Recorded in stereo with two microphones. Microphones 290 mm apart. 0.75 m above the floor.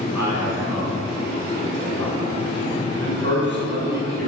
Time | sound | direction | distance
0.1 | a man speaking | 70° right (ahead or behind) | 5 m